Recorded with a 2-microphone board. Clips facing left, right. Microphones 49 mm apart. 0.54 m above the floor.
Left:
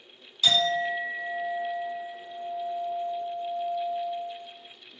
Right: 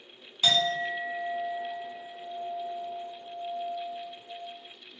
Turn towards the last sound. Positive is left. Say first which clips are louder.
# left 2 dB
turn(degrees=-30)  # may be behind; listen again after turning